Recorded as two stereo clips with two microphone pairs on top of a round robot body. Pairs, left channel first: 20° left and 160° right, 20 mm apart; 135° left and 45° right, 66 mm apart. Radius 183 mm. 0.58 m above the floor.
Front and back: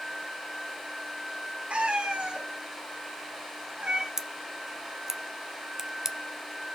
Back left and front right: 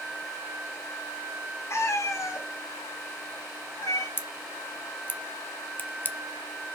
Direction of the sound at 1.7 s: 175° right.